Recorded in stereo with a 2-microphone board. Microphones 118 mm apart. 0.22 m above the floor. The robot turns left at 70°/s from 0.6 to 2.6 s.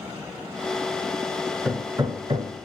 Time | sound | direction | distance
1.6 | hammering | 10° right (ahead or behind) | 0.9 m